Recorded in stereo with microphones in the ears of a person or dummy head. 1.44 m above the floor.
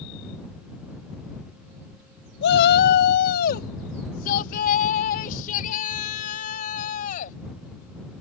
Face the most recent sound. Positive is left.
turn(degrees=45)  # may be behind; listen again after turning